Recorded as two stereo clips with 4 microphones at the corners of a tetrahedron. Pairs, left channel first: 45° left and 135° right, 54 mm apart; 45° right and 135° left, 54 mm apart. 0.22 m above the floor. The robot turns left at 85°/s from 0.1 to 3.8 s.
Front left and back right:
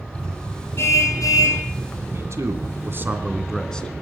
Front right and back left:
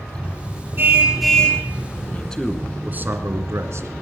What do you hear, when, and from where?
0.8 s a car horn: 90° left, 3.5 m; by 1.6 s 15° left, 3.5 m
2.1 s a man speaking: 105° right, 2 m; by 4.0 s 115° left, 2 m